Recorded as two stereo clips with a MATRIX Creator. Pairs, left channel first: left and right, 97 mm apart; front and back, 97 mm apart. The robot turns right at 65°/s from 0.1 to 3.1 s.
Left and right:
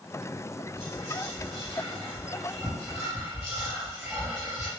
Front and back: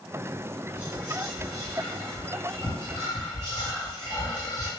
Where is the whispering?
45° left, 1.7 m; by 4.7 s 160° right, 1.7 m.